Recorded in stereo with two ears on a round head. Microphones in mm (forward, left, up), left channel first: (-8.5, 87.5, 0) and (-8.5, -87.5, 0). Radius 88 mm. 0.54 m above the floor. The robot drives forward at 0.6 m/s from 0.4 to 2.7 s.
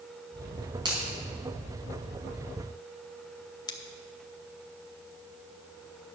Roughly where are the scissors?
Left.